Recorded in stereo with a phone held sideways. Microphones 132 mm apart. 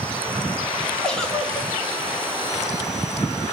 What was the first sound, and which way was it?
A giggle, 5° left (ahead or behind).